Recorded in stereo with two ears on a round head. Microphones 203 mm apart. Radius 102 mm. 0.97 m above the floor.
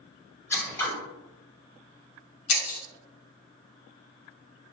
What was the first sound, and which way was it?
Scissors, 10° left (ahead or behind).